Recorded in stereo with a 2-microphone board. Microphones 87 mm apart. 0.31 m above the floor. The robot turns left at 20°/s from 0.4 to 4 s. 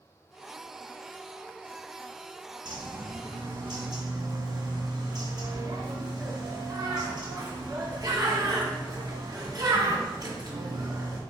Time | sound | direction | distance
2.6 | a bird | 65° right (ahead or behind) | 1.7 m